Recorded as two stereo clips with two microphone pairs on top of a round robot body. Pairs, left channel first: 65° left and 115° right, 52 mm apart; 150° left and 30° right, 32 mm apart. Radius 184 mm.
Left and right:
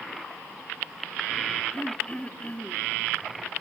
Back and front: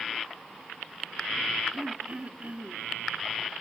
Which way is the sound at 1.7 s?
10° left.